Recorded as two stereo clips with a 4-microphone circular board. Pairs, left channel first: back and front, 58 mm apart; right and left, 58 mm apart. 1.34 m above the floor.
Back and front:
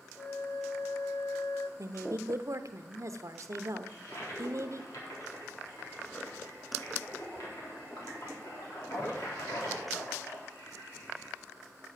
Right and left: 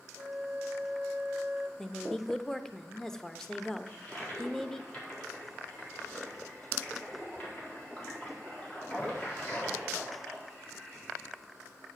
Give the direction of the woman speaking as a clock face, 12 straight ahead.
12 o'clock.